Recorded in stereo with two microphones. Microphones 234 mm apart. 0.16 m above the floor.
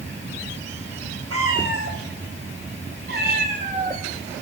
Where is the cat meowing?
70° right (ahead or behind), 5 m; by 4.0 s 20° right (ahead or behind), 2.5 m.